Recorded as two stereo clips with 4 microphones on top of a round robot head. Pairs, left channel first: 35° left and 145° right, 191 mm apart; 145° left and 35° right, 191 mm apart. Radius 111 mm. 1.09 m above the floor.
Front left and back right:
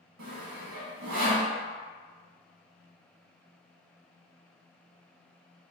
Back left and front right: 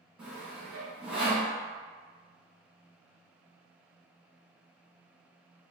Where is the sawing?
125° right, 1.1 m.